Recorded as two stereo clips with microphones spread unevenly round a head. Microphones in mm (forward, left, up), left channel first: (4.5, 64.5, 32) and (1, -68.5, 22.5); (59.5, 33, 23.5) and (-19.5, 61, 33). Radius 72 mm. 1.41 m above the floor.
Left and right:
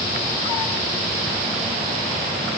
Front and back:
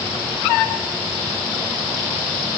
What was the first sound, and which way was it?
Only background noise.